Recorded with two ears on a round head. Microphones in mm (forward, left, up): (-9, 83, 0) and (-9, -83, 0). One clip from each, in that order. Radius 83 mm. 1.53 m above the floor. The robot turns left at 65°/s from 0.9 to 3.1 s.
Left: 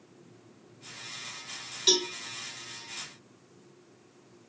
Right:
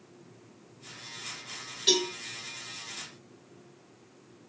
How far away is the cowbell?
About 1.2 m.